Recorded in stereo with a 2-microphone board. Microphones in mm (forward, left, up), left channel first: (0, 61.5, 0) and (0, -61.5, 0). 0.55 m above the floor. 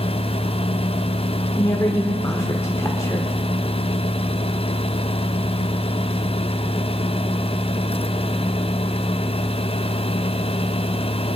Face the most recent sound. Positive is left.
turn(degrees=25)  # may be behind; listen again after turning